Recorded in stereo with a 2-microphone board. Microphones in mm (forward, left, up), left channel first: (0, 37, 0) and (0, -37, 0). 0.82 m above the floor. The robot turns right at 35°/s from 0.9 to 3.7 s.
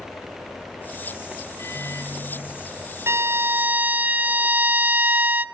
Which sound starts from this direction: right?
A violin, at 3.1 s.